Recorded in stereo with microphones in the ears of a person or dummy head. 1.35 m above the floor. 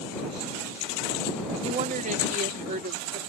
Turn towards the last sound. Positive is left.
turn(degrees=-50)  # may be behind; listen again after turning